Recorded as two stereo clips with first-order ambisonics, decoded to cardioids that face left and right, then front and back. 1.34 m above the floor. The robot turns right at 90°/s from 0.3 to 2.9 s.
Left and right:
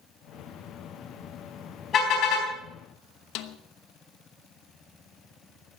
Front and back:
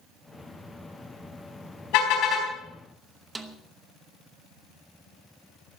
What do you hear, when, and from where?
1.9 s a car horn: 30° left, 4 m; by 2.5 s 80° left, 4 m
3.4 s a snare drum: 110° left, 1.0 m